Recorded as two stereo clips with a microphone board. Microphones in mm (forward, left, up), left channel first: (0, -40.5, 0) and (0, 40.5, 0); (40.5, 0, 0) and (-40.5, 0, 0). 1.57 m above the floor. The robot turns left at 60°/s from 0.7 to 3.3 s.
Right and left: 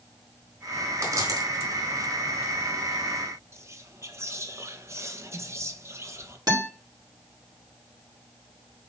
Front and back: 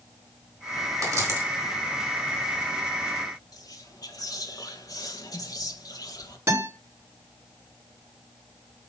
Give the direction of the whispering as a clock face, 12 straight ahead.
11 o'clock.